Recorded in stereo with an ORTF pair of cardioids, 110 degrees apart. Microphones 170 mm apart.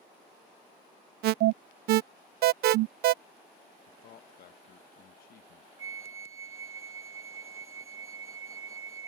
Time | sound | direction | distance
1.2 | an alarm | 70° right | ?
3.9 | a man speaking | 60° left | ?
5.8 | a flute | 20° right | ?